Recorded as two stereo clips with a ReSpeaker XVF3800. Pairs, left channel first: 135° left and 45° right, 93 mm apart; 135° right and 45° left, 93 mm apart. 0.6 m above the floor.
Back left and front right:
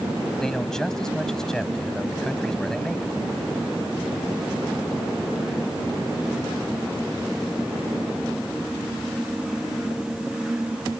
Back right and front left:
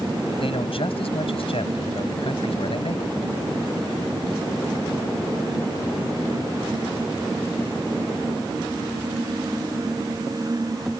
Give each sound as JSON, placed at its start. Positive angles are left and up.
{"t": 0.4, "sound": "a man speaking", "azimuth_deg": -140}